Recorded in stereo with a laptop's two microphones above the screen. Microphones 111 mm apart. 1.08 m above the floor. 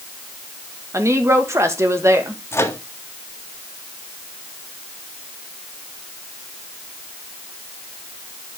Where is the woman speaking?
25° right (ahead or behind), 1.4 m.